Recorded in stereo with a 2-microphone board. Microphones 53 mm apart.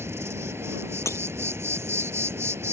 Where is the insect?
55° right (ahead or behind).